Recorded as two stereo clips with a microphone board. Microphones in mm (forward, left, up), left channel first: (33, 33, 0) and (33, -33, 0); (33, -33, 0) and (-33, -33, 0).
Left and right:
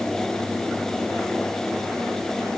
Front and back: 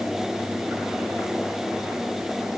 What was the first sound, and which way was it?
Only background noise.